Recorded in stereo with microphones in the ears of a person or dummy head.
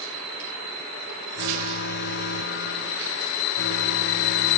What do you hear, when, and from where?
1.4 s an alarm: 60° left (ahead or behind)